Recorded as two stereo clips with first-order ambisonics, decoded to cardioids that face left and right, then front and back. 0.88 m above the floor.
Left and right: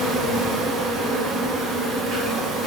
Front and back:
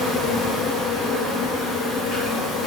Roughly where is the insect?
Ahead right.